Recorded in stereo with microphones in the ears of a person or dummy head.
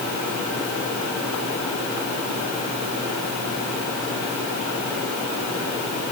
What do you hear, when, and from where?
Only background noise.